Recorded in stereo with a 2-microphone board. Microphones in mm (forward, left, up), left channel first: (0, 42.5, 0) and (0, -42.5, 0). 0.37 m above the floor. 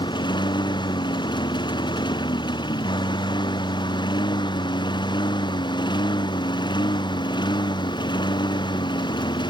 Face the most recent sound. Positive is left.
turn(degrees=65)  # may be behind; listen again after turning